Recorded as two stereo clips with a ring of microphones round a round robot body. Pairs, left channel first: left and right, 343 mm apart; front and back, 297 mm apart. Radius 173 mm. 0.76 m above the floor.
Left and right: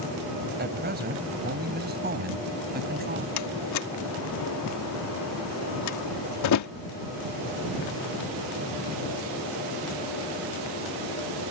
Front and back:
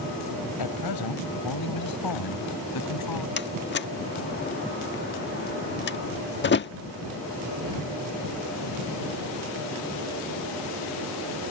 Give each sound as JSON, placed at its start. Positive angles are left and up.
{"t": 0.6, "sound": "a man speaking", "azimuth_deg": -25}
{"t": 3.4, "sound": "a door slam", "azimuth_deg": 50}